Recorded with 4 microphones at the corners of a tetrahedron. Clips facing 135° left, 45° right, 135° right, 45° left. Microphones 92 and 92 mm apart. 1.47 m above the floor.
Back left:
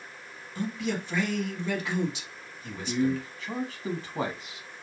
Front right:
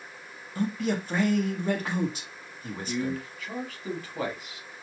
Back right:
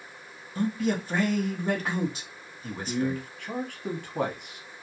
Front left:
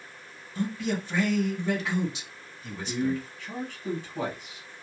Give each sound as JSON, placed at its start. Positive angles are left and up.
{"t": 0.6, "sound": "a man speaking", "azimuth_deg": -90, "distance_m": 0.9}
{"t": 2.9, "sound": "a man speaking", "azimuth_deg": -165, "distance_m": 1.0}